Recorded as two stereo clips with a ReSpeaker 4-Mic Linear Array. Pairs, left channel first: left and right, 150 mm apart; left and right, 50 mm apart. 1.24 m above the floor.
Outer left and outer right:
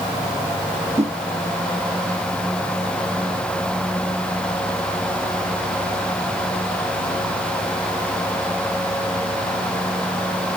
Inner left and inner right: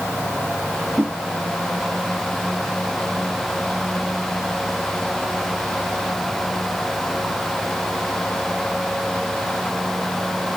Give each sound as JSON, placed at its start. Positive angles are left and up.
{"t": 1.0, "sound": "a whoosh", "side_deg": -45}